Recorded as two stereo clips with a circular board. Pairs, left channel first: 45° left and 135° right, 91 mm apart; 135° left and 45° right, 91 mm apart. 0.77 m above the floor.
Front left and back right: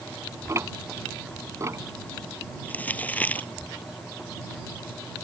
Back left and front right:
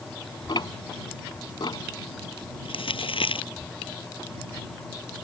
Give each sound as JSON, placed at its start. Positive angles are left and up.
{"t": 0.5, "sound": "ticking", "azimuth_deg": 170}
{"t": 2.6, "sound": "crumpling", "azimuth_deg": 120}